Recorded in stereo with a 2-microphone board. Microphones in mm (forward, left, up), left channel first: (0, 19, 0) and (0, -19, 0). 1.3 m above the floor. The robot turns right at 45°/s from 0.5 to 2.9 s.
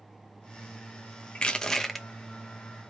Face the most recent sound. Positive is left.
turn(degrees=-140)